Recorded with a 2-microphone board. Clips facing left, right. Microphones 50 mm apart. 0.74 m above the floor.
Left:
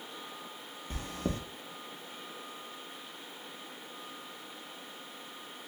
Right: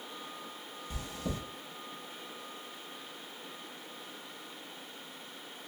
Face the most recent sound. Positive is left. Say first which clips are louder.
# left 3 dB
turn(degrees=40)  # may be behind; listen again after turning